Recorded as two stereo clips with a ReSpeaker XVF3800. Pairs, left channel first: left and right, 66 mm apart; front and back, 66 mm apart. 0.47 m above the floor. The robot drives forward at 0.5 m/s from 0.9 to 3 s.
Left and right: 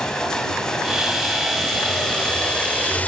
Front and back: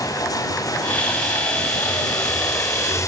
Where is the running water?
10° left, 1.7 m; by 3.1 s 20° left, 0.7 m.